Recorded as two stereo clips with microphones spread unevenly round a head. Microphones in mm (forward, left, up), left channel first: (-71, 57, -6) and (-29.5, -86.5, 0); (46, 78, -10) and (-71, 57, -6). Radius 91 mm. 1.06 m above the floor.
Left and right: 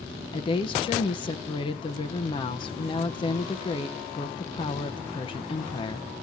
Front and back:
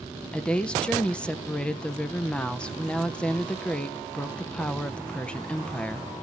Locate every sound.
0.3 s a woman speaking: 85° left, 0.5 m